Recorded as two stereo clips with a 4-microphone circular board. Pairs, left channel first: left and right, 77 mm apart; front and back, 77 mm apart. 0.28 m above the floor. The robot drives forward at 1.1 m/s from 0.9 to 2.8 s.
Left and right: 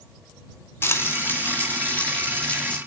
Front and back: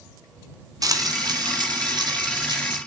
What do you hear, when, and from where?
0.8 s frying: 150° left, 1.7 m; by 2.8 s 165° left, 3.5 m